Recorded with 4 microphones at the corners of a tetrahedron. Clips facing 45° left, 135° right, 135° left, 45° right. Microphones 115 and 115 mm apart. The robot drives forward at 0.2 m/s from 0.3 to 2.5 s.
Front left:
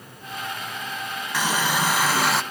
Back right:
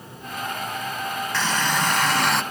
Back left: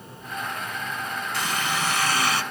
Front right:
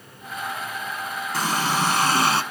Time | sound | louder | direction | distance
1.3 | a running tap | front left 1 dB, front right 5 dB | 25° right | 0.9 m